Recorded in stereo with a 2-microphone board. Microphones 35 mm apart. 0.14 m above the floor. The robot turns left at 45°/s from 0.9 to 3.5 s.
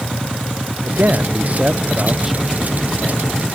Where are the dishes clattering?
No dishes clattering in this recording.